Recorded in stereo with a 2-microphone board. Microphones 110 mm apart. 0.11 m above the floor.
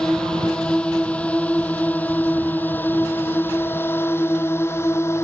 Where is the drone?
5° left (ahead or behind); by 5.2 s 25° left (ahead or behind).